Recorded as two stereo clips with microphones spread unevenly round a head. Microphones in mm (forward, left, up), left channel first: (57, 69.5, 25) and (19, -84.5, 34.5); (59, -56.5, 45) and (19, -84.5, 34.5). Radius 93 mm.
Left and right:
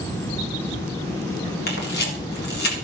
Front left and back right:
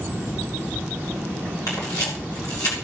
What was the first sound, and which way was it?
A camera shutter, 70° left.